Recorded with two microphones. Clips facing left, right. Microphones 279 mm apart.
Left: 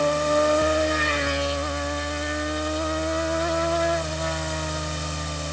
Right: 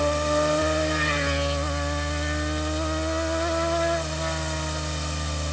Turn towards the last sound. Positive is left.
No sound to turn to.